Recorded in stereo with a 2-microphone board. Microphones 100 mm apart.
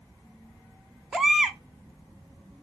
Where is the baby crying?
5° right (ahead or behind), 0.7 m.